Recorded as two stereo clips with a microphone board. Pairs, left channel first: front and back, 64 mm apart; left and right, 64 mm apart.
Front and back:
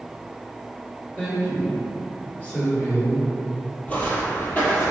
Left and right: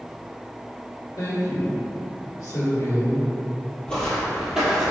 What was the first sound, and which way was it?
A woman speaking, 65° left.